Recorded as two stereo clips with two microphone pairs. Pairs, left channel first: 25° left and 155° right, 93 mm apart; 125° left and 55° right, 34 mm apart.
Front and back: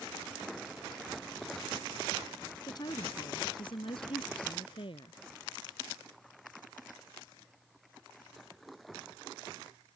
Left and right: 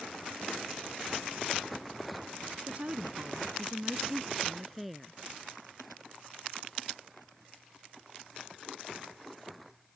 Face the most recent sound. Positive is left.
turn(degrees=35)